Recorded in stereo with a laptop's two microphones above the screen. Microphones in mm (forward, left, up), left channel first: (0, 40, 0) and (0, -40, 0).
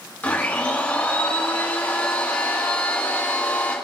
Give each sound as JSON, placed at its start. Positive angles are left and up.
{"t": 0.2, "sound": "a blender", "side_deg": 20, "distance_m": 6.0}